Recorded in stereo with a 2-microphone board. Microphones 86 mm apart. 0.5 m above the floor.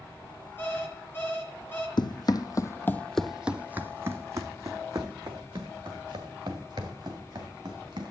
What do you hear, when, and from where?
0.6 s an alarm clock: 25° left (ahead or behind), 3.5 m
2.0 s running footsteps: 60° left (ahead or behind), 0.9 m; by 8.1 s 50° right (ahead or behind), 3.5 m